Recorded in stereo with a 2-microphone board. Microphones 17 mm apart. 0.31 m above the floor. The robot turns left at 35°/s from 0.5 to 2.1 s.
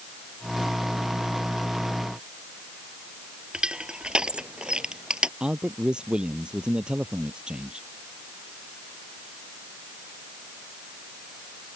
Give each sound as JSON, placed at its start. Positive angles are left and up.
{"t": 3.5, "sound": "crushing", "side_deg": -80}
{"t": 5.4, "sound": "a man speaking", "side_deg": -70}